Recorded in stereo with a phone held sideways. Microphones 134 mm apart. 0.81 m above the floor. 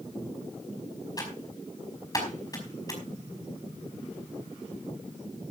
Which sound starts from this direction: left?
Typing on a keyboard, at 1.2 s.